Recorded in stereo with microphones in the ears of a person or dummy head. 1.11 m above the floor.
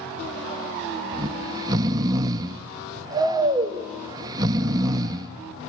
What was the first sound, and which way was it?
Snoring, 20° right (ahead or behind).